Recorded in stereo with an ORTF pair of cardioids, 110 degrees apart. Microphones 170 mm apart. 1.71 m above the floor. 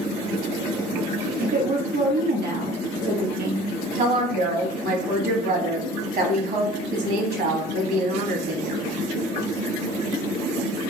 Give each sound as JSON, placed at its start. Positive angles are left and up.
{"t": 1.4, "sound": "a woman speaking", "azimuth_deg": -60, "distance_m": 1.2}
{"t": 4.0, "sound": "a woman speaking", "azimuth_deg": -65, "distance_m": 1.2}